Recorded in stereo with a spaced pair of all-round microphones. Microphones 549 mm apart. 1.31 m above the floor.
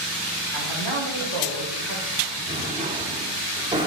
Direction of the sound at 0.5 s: 60° left (ahead or behind).